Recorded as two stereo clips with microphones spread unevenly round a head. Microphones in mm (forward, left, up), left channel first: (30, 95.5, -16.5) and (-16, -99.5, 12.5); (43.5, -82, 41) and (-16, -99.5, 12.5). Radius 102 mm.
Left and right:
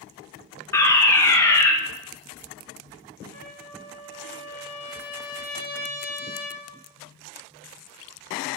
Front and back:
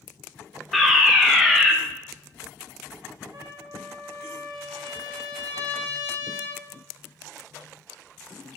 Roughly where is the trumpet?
Behind.